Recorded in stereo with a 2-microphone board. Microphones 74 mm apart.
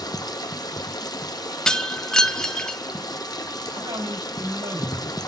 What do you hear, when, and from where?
0.0 s running water: 60° left (ahead or behind), 1.0 m
1.7 s breaking glass: 10° left (ahead or behind), 0.8 m
3.7 s a man speaking: 90° right, 8 m